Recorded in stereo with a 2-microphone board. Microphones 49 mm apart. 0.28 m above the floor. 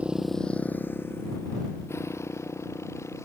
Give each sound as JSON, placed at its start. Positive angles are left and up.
{"t": 0.0, "sound": "a motorcycle", "side_deg": -25}